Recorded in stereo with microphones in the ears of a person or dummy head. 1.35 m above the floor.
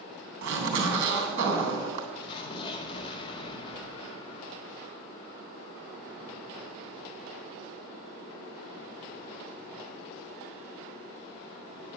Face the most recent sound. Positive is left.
turn(degrees=30)  # may be behind; listen again after turning